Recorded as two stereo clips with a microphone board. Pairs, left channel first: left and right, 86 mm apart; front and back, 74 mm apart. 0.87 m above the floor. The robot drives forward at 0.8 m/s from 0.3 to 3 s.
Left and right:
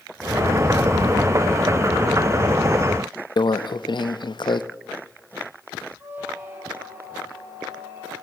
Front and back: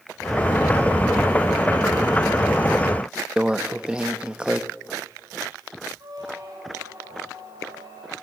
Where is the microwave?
105° left, 0.6 m.